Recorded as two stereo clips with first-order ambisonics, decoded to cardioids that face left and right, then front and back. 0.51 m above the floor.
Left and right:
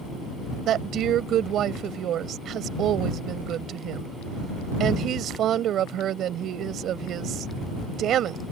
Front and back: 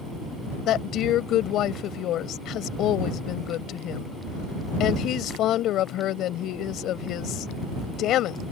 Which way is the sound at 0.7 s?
40° right.